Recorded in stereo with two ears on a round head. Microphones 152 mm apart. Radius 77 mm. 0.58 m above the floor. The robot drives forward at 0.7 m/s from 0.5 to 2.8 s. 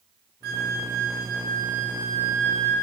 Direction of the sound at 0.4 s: 60° right (ahead or behind).